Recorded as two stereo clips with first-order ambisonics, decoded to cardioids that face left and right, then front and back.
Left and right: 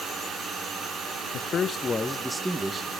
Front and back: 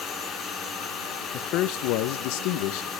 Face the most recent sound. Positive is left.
turn(degrees=-20)